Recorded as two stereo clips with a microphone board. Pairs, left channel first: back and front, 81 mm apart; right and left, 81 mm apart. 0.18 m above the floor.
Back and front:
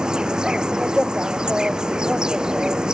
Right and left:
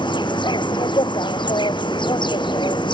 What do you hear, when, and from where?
0.0 s an insect: 80° right